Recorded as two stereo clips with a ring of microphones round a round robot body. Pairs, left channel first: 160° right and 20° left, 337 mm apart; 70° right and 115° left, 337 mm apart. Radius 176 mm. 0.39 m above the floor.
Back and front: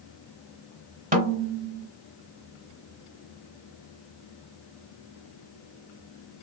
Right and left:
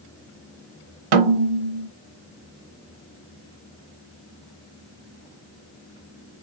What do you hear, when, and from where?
1.1 s a snare drum: 90° left, 0.9 m